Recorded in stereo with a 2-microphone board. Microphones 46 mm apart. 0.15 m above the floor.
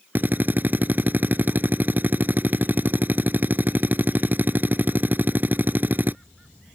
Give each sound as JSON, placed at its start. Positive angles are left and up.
{"t": 0.1, "sound": "a drill", "side_deg": -45}